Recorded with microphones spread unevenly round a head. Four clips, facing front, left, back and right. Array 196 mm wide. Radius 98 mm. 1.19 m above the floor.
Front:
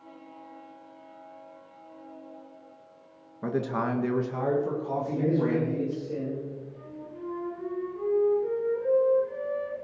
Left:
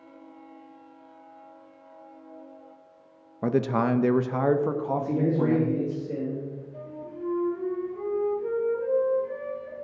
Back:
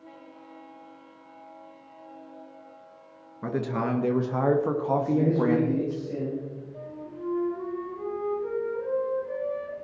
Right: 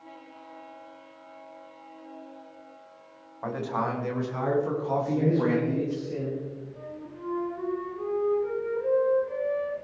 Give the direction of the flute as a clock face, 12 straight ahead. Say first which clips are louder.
Left 2 dB, back 3 dB; 9 o'clock.